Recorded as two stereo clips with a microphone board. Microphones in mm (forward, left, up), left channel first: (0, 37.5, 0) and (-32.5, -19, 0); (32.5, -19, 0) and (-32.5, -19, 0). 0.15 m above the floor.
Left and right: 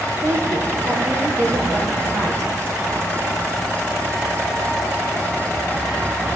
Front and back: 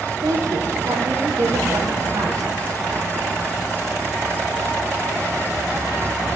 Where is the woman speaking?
160° right, 5 m.